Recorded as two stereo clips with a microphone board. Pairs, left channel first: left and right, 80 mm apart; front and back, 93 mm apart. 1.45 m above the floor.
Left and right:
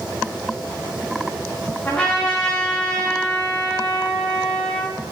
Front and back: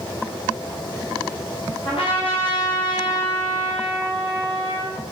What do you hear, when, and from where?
1.9 s a trumpet: 15° left, 2.5 m